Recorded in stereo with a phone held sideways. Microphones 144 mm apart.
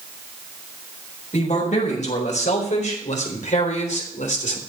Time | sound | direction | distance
1.3 | a man speaking | 60° left (ahead or behind) | 5.5 m